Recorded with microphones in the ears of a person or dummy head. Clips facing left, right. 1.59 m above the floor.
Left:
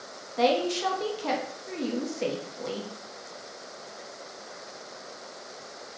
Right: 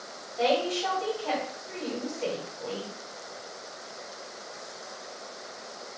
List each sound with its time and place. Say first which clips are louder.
0.4 s a woman speaking: left 2 dB; 65° left (ahead or behind), 1.0 m